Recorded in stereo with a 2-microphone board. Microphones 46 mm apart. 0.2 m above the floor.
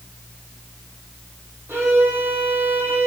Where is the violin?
55° right (ahead or behind), 2.5 m.